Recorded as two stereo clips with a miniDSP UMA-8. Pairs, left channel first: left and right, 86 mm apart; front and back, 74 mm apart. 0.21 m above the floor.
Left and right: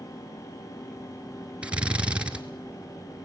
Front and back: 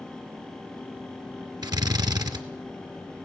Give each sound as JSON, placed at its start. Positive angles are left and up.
{"t": 1.6, "sound": "a drill", "azimuth_deg": -165, "distance_m": 2.0}